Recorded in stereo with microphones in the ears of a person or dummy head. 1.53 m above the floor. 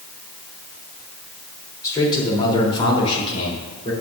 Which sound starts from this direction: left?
A man speaking, at 1.8 s.